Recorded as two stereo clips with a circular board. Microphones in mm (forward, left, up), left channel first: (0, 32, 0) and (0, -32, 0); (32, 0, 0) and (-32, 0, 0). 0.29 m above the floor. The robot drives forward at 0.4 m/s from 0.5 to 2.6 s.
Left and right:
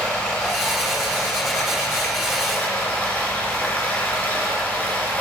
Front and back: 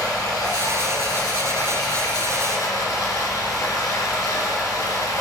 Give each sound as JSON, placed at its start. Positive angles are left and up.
{"t": 0.0, "sound": "running water", "azimuth_deg": 20, "distance_m": 4.0}